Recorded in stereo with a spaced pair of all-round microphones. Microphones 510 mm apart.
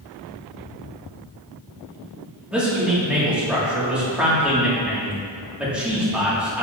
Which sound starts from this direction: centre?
A man speaking, at 2.5 s.